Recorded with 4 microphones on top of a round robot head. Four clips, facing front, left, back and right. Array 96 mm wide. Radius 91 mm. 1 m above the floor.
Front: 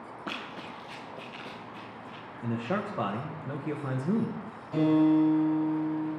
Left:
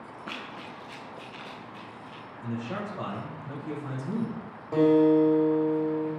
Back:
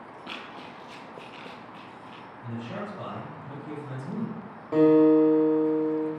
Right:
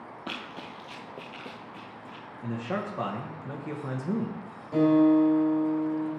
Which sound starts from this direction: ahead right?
A man speaking, at 2.4 s.